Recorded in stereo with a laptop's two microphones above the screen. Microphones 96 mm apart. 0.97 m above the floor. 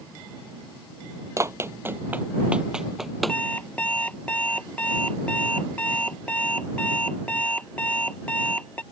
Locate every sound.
1.4 s running footsteps: 30° right (ahead or behind); by 3.4 s 5° left (ahead or behind)
3.3 s an alarm clock: 15° left (ahead or behind)